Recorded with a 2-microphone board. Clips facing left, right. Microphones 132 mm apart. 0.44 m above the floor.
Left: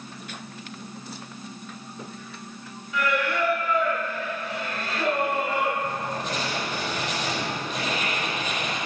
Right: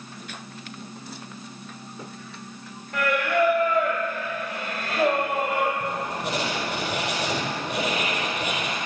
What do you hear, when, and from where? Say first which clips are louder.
2.9 s singing: right 3 dB; 55° right (ahead or behind), 2 m
5.8 s writing: right 1 dB; 70° right (ahead or behind), 5 m